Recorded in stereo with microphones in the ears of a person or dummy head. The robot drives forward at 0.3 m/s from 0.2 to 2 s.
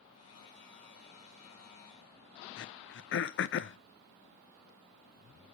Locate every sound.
2.6 s throat clearing: 55° left (ahead or behind), 0.7 m